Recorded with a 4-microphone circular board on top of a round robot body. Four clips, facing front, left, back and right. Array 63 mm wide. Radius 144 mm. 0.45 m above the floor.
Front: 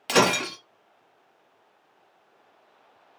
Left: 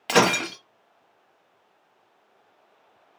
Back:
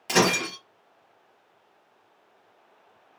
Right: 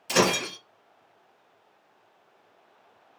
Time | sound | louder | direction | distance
0.1 | breaking glass | left 4 dB, front 1 dB | 75° left | 0.8 m